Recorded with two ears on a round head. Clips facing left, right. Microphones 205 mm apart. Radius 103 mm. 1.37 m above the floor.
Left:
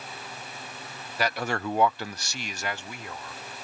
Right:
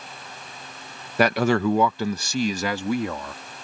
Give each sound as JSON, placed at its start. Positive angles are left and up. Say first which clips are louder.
{"t": 1.2, "sound": "a man speaking", "louder": "right 10 dB", "side_deg": -50}